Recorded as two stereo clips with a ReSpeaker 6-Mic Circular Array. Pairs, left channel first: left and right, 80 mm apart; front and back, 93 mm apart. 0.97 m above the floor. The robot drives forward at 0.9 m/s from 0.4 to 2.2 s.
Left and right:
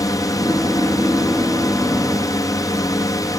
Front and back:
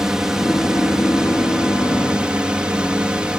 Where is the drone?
100° left; by 3.4 s 105° left.